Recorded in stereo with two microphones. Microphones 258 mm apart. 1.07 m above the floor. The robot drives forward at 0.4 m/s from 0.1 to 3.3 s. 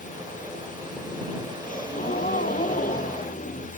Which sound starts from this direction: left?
A gasp, at 1.6 s.